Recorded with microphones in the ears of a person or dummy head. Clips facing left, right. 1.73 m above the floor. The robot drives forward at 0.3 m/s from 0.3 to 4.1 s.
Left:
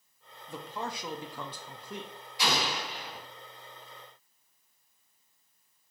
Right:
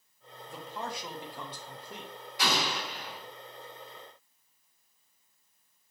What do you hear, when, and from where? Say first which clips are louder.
0.5 s a man speaking: left 1 dB; 60° left (ahead or behind), 0.6 m
2.4 s an explosion: even; 40° right (ahead or behind), 1.7 m; by 3.2 s 35° right (ahead or behind), 1.8 m